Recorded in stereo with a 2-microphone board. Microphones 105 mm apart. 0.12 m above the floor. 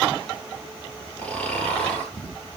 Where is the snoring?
10° left (ahead or behind), 1.4 m.